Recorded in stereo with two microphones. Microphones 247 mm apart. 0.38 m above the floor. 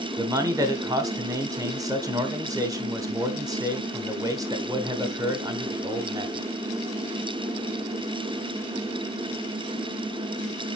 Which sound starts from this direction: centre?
A man speaking, at 0.2 s.